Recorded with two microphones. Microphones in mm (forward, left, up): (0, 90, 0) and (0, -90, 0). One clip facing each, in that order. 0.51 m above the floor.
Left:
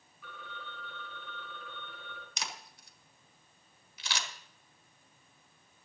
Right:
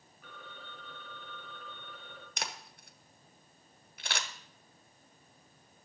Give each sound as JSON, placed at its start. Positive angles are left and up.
{"t": 0.2, "sound": "a phone ringing", "side_deg": -45, "distance_m": 3.0}
{"t": 2.4, "sound": "a camera shutter", "side_deg": -55, "distance_m": 1.2}